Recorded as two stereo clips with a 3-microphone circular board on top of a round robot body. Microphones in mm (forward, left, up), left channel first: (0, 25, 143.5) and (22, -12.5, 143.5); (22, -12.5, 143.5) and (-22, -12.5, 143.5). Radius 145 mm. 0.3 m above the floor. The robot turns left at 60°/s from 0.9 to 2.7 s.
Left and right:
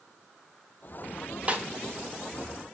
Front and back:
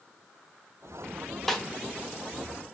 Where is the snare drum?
80° right, 0.7 m; by 1.6 s 90° right, 0.7 m.